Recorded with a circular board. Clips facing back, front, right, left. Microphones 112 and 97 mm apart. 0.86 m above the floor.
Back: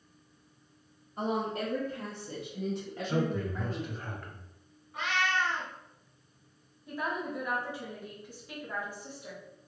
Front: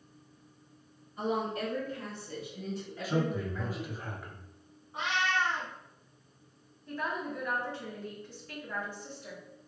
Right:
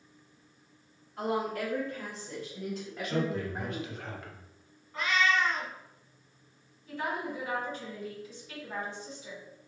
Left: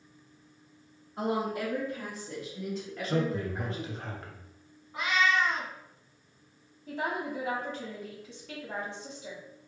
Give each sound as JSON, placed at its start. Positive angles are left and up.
{"t": 1.2, "sound": "a woman speaking", "azimuth_deg": 155, "distance_m": 1.6}
{"t": 3.0, "sound": "a man speaking", "azimuth_deg": 75, "distance_m": 0.8}
{"t": 4.9, "sound": "a cat meowing", "azimuth_deg": 35, "distance_m": 0.8}
{"t": 6.9, "sound": "a woman speaking", "azimuth_deg": 100, "distance_m": 1.6}